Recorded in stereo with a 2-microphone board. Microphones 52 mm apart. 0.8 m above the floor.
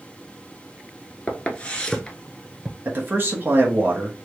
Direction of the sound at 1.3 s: 30° left (ahead or behind).